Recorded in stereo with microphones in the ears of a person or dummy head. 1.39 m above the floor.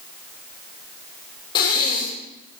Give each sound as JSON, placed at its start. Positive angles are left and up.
{"t": 1.6, "sound": "breathing", "side_deg": 20, "distance_m": 1.1}